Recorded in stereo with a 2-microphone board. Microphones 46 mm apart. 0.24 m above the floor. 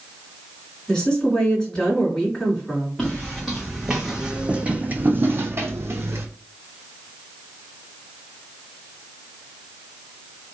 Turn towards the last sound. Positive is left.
turn(degrees=-80)